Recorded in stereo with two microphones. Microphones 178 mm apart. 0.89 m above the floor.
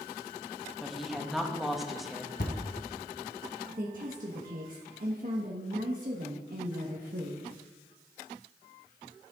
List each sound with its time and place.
0.8 s a woman speaking: centre (ahead or behind), 1.0 m
2.4 s a thud: 65° left (ahead or behind), 1.5 m
3.8 s a woman speaking: 50° right (ahead or behind), 1.2 m